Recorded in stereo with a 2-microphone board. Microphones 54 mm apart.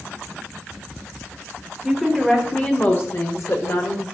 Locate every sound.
1.8 s a woman speaking: centre (ahead or behind), 1.7 m; by 4.0 s 60° left (ahead or behind), 1.8 m